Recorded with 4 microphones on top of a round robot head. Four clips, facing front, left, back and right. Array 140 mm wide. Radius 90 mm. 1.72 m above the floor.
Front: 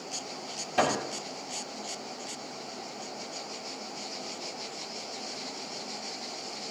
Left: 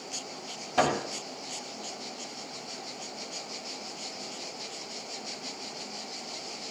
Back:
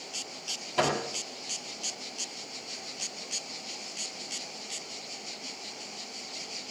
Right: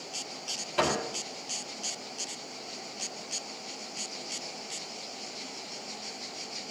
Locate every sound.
0.8 s a microwave: 85° left, 7.5 m